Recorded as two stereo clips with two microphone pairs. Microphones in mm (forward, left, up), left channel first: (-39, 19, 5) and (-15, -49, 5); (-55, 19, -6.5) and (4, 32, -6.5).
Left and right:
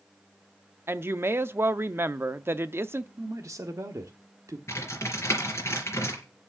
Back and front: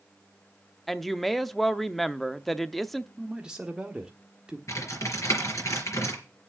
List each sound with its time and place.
0.9 s a woman speaking: 85° right, 0.7 m
3.2 s a man speaking: 60° right, 1.1 m
4.7 s typing on a keyboard: 160° left, 4 m